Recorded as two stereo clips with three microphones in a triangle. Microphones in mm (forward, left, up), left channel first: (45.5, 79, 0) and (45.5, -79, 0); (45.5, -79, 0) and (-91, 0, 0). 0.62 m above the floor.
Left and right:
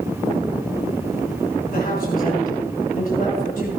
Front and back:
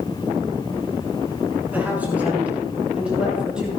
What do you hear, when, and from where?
1.7 s a man speaking: 70° left, 7 m; by 3.7 s 65° left, 8 m